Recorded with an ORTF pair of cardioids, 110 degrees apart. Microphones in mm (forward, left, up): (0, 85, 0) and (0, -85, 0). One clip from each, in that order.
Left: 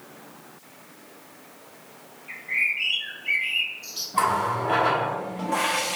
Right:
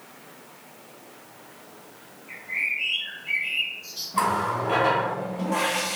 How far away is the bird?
About 2 m.